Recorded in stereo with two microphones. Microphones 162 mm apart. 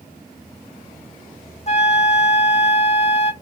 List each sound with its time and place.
1.7 s a flute: 45° left (ahead or behind), 0.5 m